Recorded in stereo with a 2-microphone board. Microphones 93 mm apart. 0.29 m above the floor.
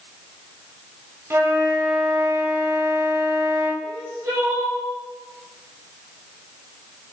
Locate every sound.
1.3 s a flute: 25° right (ahead or behind), 0.6 m
3.8 s crying: 40° right (ahead or behind), 1.9 m